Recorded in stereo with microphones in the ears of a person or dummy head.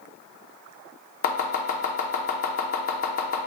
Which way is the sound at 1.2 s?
50° left (ahead or behind).